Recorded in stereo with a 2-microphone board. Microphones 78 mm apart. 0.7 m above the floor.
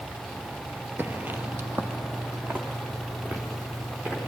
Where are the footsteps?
25° right (ahead or behind), 0.7 m; by 4.3 s 20° right (ahead or behind), 5.5 m.